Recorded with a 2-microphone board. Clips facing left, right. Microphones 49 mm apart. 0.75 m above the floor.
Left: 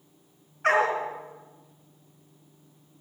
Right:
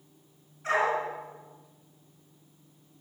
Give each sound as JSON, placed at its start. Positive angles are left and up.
{"t": 0.6, "sound": "a dog barking", "side_deg": 65, "distance_m": 3.5}